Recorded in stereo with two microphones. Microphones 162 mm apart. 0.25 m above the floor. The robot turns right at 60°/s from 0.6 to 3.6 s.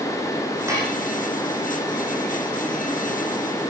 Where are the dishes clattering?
15° right (ahead or behind), 9 m; by 1.0 s 35° right (ahead or behind), 9 m.